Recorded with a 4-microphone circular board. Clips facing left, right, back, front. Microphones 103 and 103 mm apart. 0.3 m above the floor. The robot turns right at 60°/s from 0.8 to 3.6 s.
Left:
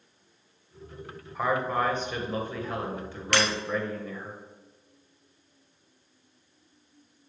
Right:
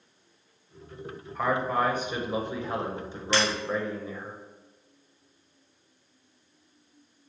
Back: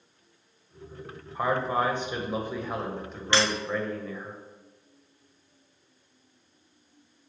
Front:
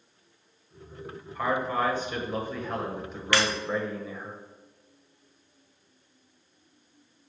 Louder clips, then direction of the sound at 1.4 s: Even, back 1 dB; 170° left.